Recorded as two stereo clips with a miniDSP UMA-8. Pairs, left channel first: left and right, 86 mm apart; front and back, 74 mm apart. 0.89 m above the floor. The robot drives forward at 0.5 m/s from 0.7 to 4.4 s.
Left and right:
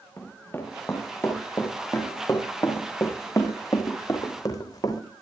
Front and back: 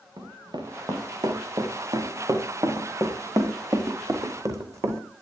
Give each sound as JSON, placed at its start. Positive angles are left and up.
{"t": 0.2, "sound": "running footsteps", "azimuth_deg": 155, "distance_m": 5.0}